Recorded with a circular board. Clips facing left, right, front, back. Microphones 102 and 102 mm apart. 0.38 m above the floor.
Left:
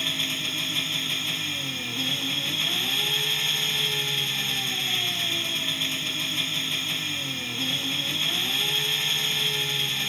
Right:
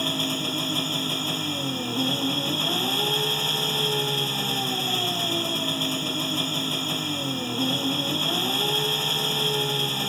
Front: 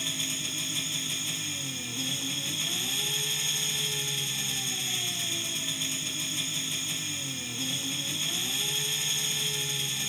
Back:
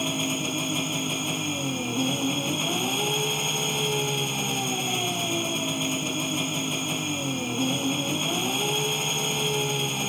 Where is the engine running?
145° right.